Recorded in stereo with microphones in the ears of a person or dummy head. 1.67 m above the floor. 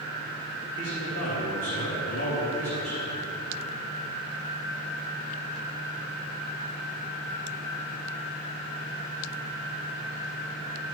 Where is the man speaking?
75° left (ahead or behind), 3 m.